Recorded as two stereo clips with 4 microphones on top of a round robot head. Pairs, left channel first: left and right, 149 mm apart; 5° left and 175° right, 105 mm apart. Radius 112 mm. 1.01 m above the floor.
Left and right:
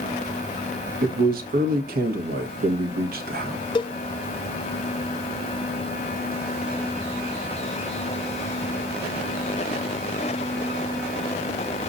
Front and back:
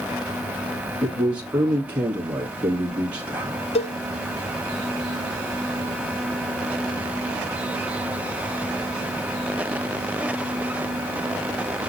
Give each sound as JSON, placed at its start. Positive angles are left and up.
{"t": 1.0, "sound": "a man speaking", "azimuth_deg": -100, "distance_m": 1.3}
{"t": 3.8, "sound": "a cowbell", "azimuth_deg": 30, "distance_m": 0.7}